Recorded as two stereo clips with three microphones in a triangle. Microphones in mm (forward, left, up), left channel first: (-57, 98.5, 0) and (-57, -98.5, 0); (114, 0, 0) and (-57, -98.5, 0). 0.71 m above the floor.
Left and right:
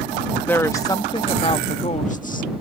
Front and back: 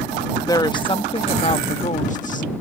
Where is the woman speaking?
30° left; by 2.5 s 60° left.